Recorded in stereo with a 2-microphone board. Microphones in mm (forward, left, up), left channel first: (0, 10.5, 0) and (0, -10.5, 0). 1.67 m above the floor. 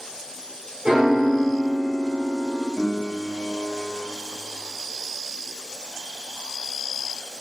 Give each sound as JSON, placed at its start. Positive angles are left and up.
{"t": 0.8, "sound": "a piano", "side_deg": -65, "distance_m": 1.4}
{"t": 2.8, "sound": "a piano", "side_deg": 25, "distance_m": 0.7}